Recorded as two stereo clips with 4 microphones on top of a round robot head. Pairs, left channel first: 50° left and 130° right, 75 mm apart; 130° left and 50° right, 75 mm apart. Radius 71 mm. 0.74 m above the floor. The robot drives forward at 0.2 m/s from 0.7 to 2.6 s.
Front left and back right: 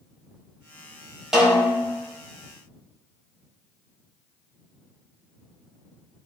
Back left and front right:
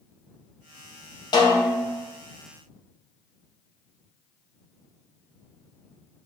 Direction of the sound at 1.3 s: 145° left.